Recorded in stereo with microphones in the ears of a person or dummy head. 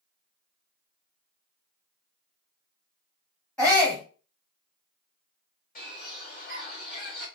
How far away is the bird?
About 1.8 m.